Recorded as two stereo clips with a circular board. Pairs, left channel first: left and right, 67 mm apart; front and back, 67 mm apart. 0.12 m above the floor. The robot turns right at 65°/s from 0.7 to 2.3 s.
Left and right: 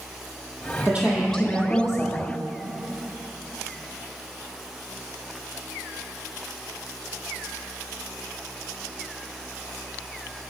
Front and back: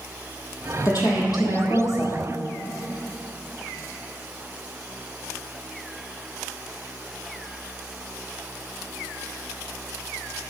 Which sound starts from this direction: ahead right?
A woman speaking, at 0.8 s.